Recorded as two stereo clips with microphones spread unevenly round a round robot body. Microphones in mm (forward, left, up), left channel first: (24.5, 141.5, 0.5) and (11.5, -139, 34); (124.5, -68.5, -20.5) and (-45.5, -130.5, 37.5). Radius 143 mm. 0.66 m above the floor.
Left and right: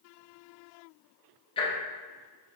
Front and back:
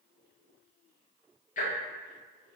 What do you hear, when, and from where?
1.6 s ticking: 25° left, 0.7 m